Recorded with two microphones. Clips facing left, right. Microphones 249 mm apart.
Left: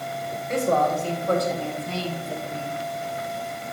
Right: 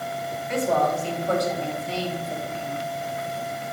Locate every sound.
0.5 s a woman speaking: 45° left (ahead or behind), 3.5 m; by 2.8 s 60° left (ahead or behind), 2 m